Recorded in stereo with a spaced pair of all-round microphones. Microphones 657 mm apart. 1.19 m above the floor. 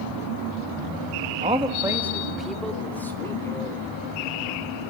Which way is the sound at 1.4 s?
10° right (ahead or behind).